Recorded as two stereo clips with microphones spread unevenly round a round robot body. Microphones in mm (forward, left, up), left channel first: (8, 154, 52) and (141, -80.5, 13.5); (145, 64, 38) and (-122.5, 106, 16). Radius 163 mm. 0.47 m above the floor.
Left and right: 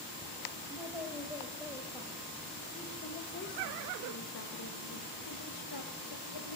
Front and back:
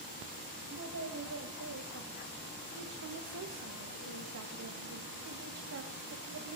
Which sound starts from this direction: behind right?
A woman speaking, at 0.7 s.